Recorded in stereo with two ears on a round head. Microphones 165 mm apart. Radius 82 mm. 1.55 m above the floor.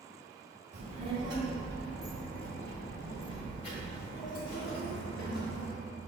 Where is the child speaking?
40° right (ahead or behind), 1.1 m; by 5.7 s 55° left (ahead or behind), 2 m.